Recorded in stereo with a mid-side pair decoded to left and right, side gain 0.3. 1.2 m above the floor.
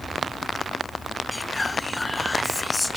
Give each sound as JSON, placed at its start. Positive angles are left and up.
{"t": 1.3, "sound": "whispering", "azimuth_deg": 30}